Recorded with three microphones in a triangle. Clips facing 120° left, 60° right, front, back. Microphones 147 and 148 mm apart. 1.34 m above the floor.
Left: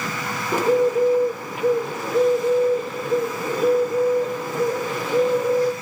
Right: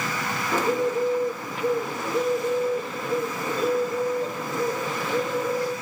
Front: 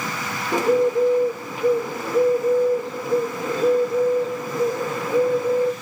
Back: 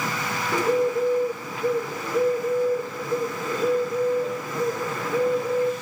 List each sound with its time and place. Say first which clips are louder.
0.5 s a bird: left 6 dB, front 4 dB; 50° left, 1.0 m